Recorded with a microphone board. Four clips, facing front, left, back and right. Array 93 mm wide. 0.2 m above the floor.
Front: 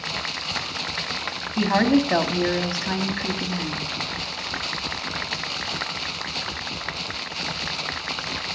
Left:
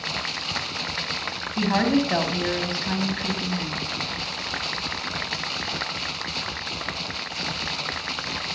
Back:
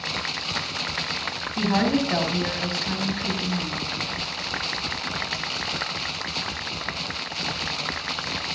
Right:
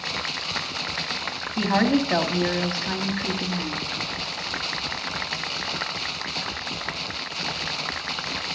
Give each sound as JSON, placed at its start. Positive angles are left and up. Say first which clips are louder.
{"t": 1.6, "sound": "a woman speaking", "louder": "even, front 3 dB", "azimuth_deg": -10, "distance_m": 1.5}